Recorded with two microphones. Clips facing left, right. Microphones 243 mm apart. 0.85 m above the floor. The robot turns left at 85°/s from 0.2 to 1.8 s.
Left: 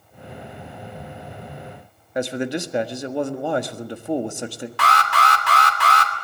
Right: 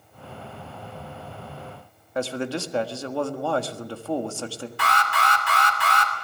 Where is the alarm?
75° left (ahead or behind), 2.5 m.